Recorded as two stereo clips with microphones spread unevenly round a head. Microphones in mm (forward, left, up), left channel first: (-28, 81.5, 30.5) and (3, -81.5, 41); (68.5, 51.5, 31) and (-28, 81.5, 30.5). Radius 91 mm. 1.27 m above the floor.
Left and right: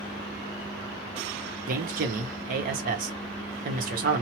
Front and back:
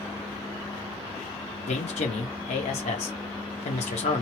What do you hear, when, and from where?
1.7 s a man speaking: 35° right, 0.9 m